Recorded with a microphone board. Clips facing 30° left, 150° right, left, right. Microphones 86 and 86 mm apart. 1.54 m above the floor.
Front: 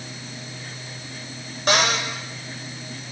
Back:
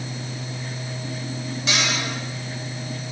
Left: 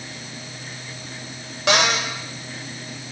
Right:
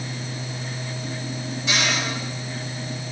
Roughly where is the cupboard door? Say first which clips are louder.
Front 6 dB, left 6 dB; left.